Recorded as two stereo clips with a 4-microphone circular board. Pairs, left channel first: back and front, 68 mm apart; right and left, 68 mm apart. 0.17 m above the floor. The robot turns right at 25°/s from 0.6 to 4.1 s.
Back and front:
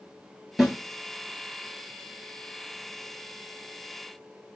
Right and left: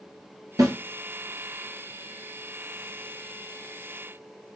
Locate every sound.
0.6 s a snare drum: 85° left, 1.6 m; by 0.8 s 90° left, 1.6 m